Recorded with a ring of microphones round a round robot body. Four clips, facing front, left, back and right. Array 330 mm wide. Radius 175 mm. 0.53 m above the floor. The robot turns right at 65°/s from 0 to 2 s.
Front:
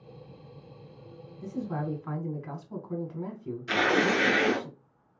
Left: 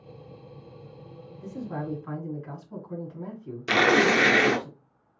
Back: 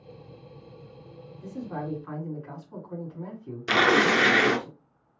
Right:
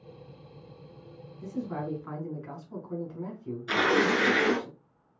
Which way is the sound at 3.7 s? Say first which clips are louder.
Left 4 dB, back 4 dB; 130° left.